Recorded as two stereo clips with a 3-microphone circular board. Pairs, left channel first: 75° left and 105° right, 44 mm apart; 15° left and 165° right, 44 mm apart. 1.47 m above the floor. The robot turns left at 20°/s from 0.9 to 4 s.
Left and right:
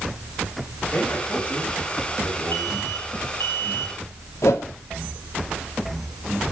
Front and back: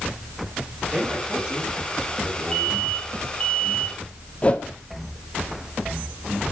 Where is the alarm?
90° left, 4 m; by 4.0 s 65° left, 4 m.